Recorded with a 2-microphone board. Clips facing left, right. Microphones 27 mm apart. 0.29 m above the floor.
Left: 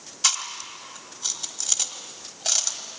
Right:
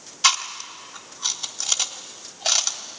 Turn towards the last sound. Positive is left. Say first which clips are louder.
# right 5 dB
turn(degrees=-20)  # may be behind; listen again after turning